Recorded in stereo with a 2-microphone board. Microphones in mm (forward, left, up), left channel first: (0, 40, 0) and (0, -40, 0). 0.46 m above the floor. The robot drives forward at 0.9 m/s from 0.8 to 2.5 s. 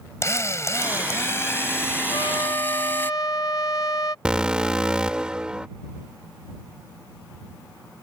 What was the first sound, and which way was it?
A drill, 35° left (ahead or behind).